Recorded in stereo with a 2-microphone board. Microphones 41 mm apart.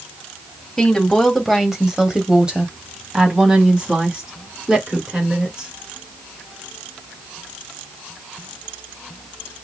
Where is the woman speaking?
5° left (ahead or behind), 1.4 m; by 5.7 s 25° right (ahead or behind), 3 m.